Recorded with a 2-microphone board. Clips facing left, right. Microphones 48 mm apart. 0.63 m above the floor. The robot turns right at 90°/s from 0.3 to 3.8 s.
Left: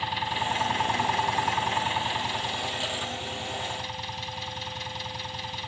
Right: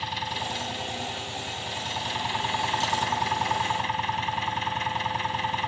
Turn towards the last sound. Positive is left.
turn(degrees=-40)